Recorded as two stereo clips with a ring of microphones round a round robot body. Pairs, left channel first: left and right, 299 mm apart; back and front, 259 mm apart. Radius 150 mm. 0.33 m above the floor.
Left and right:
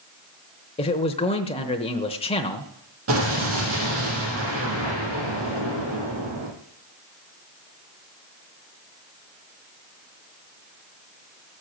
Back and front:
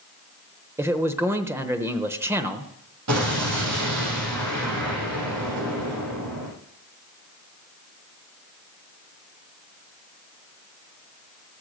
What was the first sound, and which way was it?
A man speaking, 60° left.